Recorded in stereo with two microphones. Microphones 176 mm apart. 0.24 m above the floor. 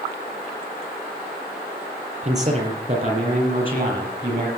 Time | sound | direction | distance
2.2 | a man speaking | 45° right (ahead or behind) | 6.5 m